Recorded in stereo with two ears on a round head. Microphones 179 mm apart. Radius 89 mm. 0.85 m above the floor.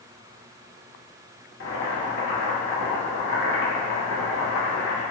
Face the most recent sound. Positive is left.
turn(degrees=55)  # may be behind; listen again after turning